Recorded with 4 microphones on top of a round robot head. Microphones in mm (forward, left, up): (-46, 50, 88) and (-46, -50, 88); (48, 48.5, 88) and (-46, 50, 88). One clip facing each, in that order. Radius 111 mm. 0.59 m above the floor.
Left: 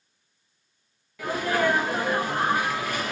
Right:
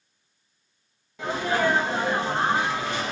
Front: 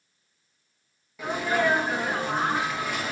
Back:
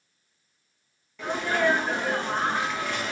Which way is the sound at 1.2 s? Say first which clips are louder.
Even, even; 70° right.